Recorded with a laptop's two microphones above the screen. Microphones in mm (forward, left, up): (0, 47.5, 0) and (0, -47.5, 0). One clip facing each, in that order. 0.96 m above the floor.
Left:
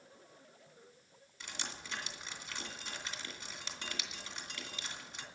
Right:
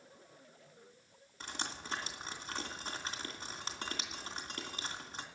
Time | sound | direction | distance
1.4 | dripping | 45° right (ahead or behind) | 2.5 m